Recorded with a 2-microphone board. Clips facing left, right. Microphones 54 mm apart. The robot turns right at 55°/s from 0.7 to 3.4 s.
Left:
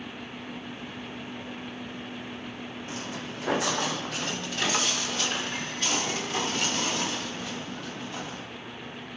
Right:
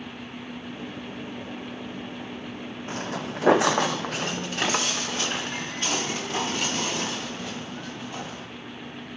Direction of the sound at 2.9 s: 35° right (ahead or behind).